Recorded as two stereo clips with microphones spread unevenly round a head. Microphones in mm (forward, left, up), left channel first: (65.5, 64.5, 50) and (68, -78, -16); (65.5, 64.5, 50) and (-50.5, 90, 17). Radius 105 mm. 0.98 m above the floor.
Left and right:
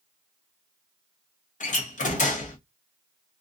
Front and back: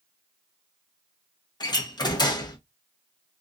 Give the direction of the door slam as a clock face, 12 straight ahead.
10 o'clock.